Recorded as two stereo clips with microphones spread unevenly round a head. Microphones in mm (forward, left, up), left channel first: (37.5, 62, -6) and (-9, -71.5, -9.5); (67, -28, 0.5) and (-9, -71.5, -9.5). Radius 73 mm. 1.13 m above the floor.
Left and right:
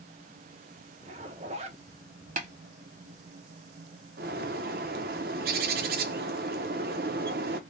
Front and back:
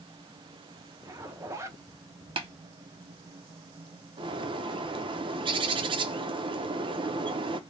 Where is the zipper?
120° right, 0.6 m.